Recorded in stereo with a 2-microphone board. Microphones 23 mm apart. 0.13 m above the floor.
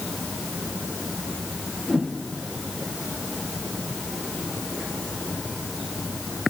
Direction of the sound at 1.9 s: 50° left (ahead or behind).